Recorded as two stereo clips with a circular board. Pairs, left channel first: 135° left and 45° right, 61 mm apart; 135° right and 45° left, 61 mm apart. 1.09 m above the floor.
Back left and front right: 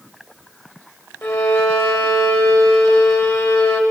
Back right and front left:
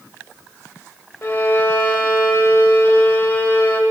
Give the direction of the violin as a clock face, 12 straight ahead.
6 o'clock.